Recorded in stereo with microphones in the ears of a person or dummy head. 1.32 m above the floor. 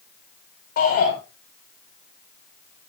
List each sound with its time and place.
0.8 s a shout: 60° left (ahead or behind), 4 m